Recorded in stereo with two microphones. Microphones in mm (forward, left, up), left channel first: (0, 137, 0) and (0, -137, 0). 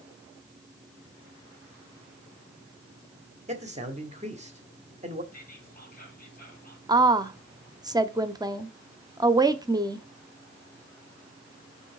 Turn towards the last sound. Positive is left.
turn(degrees=-15)  # may be behind; listen again after turning